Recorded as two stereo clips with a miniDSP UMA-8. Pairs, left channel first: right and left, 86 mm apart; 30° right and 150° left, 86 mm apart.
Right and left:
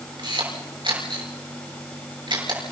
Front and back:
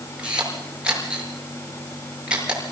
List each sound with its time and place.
0.2 s a camera shutter: 70° left, 7 m